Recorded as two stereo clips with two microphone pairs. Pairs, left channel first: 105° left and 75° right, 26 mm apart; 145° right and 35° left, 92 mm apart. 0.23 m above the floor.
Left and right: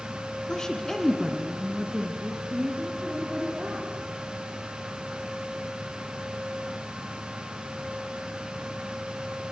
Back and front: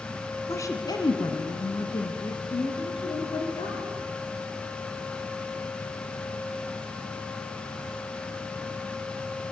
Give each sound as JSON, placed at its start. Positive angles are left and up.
{"t": 0.5, "sound": "a woman speaking", "azimuth_deg": 160, "distance_m": 2.5}